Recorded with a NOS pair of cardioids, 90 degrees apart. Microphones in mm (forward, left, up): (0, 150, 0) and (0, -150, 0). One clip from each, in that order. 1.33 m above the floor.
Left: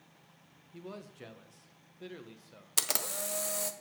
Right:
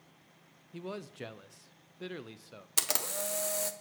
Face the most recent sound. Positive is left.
turn(degrees=0)